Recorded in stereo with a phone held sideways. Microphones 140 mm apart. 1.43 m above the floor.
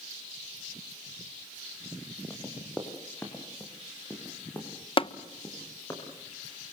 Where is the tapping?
40° left (ahead or behind), 0.6 m.